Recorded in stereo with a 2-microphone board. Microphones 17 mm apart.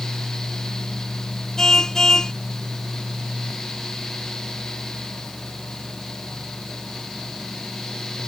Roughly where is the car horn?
Left.